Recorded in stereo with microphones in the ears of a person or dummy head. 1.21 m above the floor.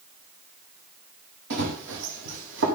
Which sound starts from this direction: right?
Running footsteps, at 1.5 s.